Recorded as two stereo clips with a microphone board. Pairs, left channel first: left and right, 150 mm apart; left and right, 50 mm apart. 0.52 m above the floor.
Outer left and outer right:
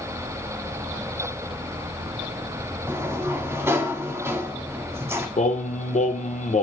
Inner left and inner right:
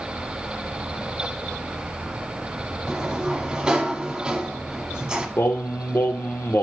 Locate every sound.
2.9 s a sliding door: 20° right (ahead or behind), 0.6 m
5.4 s singing: 55° left (ahead or behind), 0.6 m